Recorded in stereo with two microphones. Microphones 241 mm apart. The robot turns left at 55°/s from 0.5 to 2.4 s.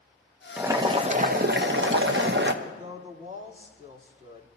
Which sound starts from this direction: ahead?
Boiling, at 0.6 s.